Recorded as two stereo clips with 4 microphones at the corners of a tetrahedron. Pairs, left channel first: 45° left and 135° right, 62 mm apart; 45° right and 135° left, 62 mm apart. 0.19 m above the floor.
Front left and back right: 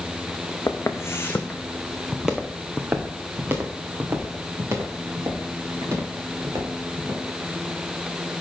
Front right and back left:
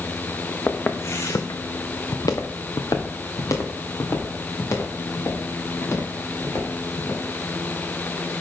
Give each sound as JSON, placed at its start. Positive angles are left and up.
{"t": 0.7, "sound": "footsteps", "azimuth_deg": 10, "distance_m": 1.1}